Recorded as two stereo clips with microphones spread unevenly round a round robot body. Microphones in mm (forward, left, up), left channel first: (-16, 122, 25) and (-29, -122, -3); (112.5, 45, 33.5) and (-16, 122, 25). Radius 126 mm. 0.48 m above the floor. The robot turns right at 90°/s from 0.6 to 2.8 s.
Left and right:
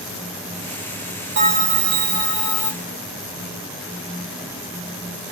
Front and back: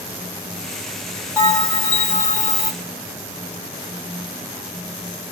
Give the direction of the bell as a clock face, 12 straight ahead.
4 o'clock.